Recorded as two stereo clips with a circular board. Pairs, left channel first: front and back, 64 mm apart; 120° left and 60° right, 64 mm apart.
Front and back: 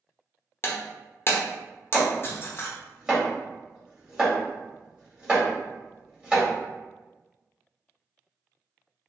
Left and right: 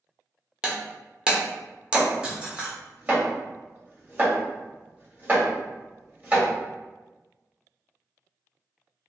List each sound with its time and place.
0.6 s breaking glass: straight ahead, 0.7 m
1.9 s chopping: 110° right, 1.4 m